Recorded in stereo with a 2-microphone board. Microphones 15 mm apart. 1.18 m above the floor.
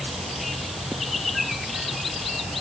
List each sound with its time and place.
Only background noise.